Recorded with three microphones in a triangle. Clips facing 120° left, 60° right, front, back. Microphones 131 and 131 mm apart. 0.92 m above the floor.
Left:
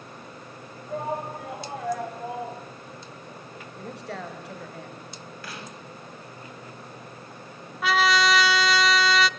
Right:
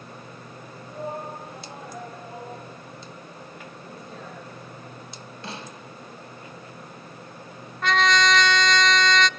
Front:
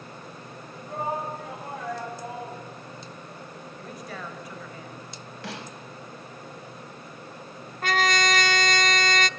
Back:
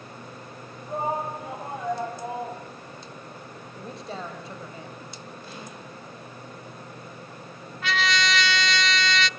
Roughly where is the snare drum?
Ahead.